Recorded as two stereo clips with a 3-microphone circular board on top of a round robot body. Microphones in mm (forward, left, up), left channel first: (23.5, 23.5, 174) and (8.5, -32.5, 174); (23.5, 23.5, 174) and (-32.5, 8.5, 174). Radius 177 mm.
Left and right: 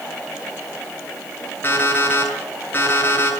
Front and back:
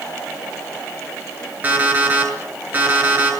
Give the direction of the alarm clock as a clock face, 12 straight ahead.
8 o'clock.